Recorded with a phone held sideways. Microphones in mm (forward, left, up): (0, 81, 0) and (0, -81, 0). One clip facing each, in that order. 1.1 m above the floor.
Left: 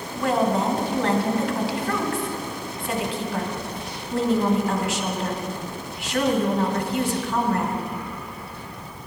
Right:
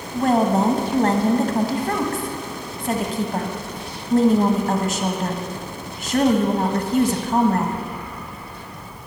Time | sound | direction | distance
0.1 | a woman speaking | 40° right (ahead or behind) | 1.6 m